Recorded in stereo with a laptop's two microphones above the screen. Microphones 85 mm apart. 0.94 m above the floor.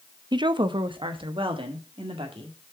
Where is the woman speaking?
55° right (ahead or behind), 0.7 m; by 2.6 s 75° right (ahead or behind), 2 m.